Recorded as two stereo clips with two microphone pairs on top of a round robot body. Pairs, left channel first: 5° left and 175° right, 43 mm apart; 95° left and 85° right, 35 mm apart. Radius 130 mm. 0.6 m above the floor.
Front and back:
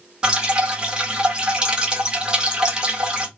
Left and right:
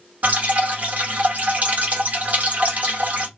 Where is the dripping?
120° right, 1.7 m.